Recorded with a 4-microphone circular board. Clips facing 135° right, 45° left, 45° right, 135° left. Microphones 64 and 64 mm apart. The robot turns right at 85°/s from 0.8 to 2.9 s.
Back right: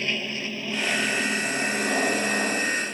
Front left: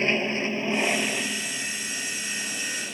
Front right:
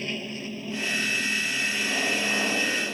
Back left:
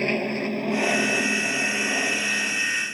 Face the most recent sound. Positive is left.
turn(degrees=-60)